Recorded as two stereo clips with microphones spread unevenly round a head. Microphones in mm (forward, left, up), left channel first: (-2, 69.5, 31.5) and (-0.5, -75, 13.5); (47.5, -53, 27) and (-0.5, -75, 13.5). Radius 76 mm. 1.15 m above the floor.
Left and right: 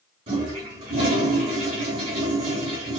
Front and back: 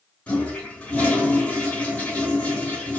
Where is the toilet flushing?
35° right, 2.5 m.